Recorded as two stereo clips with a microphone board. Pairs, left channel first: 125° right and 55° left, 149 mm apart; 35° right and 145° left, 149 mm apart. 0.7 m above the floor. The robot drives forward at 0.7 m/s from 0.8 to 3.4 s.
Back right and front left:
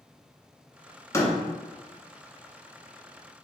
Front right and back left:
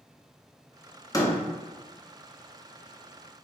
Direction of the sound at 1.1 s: 75° right.